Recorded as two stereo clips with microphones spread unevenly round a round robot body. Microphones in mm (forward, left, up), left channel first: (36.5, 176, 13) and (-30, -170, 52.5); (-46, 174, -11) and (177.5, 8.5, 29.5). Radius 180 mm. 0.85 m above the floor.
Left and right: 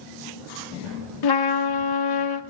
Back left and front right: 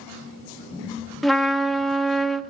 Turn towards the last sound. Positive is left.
turn(degrees=55)